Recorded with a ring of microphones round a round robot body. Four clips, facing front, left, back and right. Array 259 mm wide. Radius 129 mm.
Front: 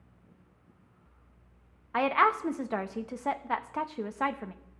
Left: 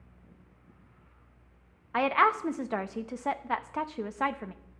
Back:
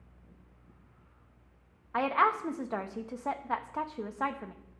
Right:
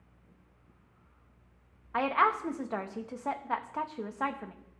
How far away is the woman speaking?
About 0.6 m.